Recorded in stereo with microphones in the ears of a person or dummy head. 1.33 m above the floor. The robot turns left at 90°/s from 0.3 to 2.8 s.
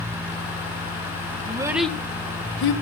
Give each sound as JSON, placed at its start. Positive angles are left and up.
{"t": 1.4, "sound": "a child speaking", "side_deg": -30, "distance_m": 1.0}